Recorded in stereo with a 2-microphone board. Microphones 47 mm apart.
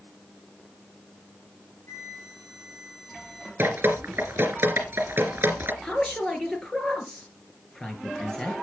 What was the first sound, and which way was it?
A flute, 75° left (ahead or behind).